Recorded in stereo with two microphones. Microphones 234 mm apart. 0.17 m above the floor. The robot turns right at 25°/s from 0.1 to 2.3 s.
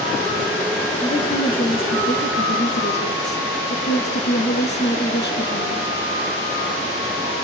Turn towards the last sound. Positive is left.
turn(degrees=70)